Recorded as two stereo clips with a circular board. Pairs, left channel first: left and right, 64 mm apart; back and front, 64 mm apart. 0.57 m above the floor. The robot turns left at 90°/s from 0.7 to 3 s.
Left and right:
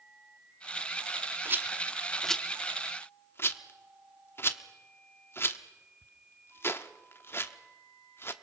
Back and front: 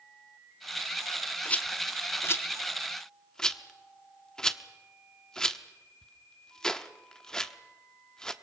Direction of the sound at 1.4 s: 115° right.